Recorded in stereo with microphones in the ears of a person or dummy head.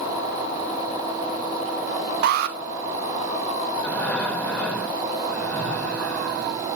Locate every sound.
2.2 s an alarm: 50° right (ahead or behind), 1.2 m
3.8 s breathing: 10° left (ahead or behind), 2.5 m